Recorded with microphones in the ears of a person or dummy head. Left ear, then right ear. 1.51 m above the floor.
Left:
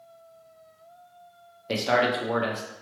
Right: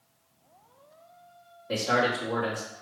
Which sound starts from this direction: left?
A man speaking, at 1.7 s.